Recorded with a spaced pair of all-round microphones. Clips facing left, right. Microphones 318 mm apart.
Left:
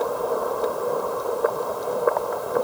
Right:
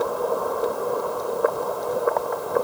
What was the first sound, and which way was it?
Only background noise.